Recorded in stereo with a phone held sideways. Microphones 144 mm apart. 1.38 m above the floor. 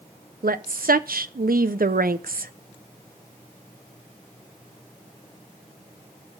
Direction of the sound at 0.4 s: 85° right.